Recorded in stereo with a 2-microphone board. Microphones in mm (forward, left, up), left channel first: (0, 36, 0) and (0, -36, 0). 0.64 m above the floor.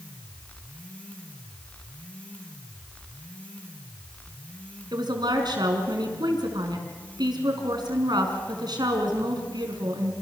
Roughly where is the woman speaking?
Right.